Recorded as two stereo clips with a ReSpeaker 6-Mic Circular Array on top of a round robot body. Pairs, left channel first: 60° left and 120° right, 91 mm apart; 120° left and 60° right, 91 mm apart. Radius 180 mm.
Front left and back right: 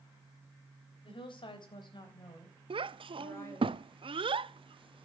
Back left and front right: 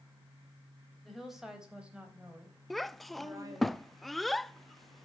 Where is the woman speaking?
30° left, 4 m; by 3.7 s 5° right, 4.5 m.